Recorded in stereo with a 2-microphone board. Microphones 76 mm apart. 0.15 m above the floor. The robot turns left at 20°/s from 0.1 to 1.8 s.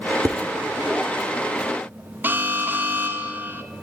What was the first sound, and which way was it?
Dishes clattering, 45° right (ahead or behind).